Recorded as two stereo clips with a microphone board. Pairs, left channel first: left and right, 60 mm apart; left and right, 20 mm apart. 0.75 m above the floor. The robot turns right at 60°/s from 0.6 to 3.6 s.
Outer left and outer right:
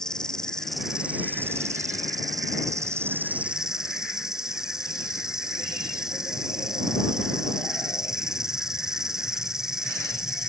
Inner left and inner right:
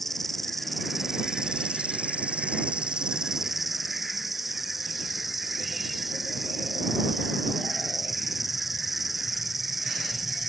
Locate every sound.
0.0 s an insect: 170° left; by 10.5 s 10° right